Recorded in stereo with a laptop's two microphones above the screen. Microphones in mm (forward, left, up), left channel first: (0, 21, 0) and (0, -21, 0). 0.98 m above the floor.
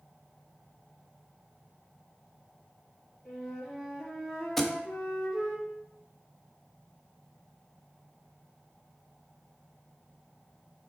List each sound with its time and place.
3.2 s a flute: 5° left (ahead or behind), 3.5 m
4.6 s a thud: 5° left (ahead or behind), 0.8 m